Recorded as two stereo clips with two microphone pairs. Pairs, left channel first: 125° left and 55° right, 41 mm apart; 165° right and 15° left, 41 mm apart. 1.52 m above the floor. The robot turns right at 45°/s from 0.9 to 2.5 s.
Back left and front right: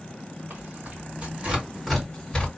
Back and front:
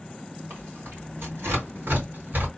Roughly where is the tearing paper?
Ahead.